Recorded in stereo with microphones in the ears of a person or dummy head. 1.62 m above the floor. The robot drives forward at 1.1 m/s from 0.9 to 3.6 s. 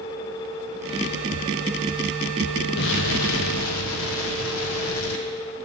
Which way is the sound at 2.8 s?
55° left (ahead or behind).